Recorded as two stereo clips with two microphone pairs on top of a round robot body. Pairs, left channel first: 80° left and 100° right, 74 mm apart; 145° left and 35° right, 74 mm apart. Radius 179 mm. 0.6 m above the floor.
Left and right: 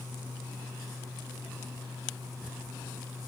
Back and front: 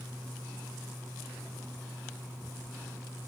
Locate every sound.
Only background noise.